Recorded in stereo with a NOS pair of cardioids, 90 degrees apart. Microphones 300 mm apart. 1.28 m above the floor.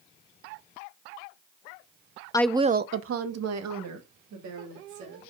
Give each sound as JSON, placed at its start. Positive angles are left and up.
{"t": 2.3, "sound": "a woman speaking", "azimuth_deg": 15, "distance_m": 0.6}